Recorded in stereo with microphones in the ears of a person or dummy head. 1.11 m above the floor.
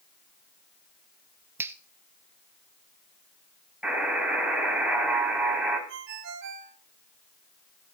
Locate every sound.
1.6 s a finger snap: 15° right (ahead or behind), 0.8 m
3.8 s a buzzer: 5° right (ahead or behind), 5 m
5.9 s a ringtone: 70° right (ahead or behind), 2 m